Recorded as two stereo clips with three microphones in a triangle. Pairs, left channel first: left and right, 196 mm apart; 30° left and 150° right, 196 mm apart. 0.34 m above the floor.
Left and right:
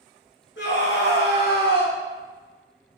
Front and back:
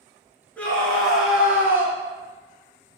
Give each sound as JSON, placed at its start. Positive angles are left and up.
{"t": 0.6, "sound": "a scream", "azimuth_deg": 110, "distance_m": 3.5}